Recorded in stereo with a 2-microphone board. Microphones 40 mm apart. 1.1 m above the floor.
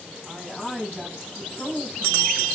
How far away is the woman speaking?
About 9.5 m.